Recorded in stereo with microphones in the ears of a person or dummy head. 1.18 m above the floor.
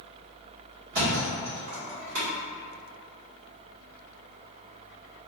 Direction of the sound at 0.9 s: 55° right (ahead or behind).